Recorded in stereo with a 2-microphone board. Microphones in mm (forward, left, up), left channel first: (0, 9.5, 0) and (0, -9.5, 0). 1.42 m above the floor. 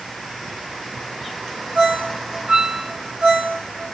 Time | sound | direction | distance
1.8 | a ringtone | 60° right (ahead or behind) | 6 m